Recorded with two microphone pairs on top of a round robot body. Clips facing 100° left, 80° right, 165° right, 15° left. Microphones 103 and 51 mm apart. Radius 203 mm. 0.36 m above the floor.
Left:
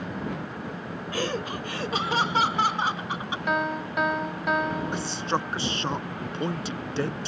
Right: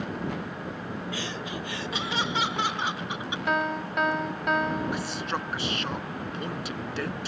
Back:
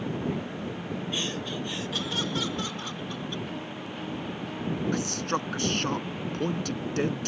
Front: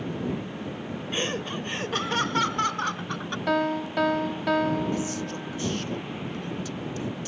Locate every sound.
1.1 s laughter: 65° left; by 3.4 s 50° left
3.5 s a piano: 15° left
4.9 s a man speaking: 160° left